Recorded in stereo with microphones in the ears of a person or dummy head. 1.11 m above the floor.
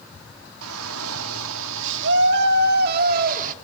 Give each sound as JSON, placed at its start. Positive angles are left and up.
{"t": 0.6, "sound": "a shout", "side_deg": -85, "distance_m": 2.0}